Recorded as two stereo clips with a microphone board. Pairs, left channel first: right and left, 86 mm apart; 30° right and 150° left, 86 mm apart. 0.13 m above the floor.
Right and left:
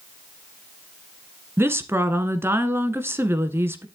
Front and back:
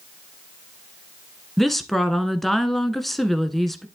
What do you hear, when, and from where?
1.6 s a woman speaking: 55° left, 1.3 m